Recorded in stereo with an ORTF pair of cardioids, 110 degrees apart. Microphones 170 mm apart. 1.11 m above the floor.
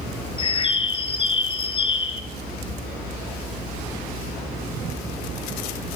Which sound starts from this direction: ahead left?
A bird, at 0.4 s.